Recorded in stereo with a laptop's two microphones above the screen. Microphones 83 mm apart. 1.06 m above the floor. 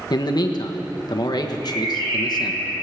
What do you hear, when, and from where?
0.1 s a man speaking: 55° left (ahead or behind), 1.2 m
1.6 s a bird: 75° right (ahead or behind), 6 m